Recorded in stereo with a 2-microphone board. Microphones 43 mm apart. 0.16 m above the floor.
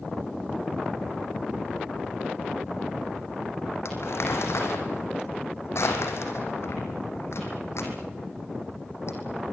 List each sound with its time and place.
3.9 s crumpling: 80° left, 4.5 m